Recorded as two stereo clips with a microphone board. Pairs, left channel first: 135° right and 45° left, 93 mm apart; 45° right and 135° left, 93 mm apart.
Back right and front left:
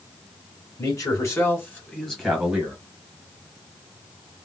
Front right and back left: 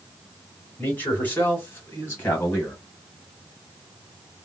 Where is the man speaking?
110° right, 1.7 m; by 2.8 s 15° right, 1.3 m.